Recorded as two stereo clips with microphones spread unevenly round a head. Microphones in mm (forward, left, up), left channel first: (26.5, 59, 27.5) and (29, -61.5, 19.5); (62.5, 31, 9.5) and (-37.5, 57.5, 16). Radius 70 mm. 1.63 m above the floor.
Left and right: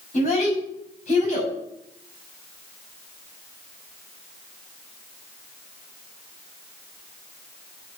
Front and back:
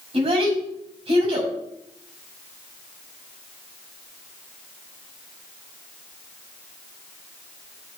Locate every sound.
0.1 s a child speaking: 135° left, 6 m